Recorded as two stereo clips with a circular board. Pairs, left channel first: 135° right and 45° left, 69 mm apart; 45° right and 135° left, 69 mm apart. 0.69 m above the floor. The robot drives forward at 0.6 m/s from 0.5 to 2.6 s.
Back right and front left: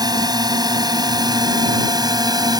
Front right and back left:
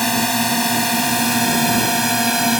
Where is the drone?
45° left; by 2.6 s 50° left.